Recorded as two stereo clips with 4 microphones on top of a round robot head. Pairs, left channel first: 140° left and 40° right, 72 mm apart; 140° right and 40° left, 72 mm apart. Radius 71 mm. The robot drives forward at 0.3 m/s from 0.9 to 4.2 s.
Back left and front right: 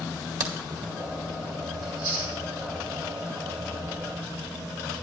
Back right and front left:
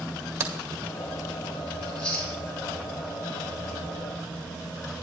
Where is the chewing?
65° right, 4.5 m.